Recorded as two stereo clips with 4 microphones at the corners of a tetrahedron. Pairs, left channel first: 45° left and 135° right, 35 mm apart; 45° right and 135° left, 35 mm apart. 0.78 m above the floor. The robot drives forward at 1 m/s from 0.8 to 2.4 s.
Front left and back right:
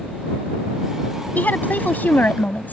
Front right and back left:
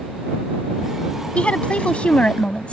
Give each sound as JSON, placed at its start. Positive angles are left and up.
{"t": 1.4, "sound": "a woman speaking", "azimuth_deg": 10}